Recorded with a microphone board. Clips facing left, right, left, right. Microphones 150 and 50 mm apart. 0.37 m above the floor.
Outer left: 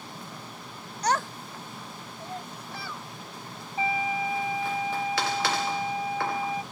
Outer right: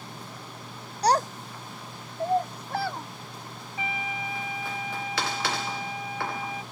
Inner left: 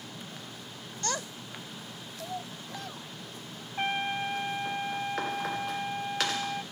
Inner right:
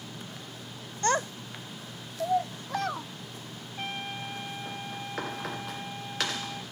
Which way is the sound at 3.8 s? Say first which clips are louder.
Outer left 6 dB, inner left 6 dB; 35° left (ahead or behind).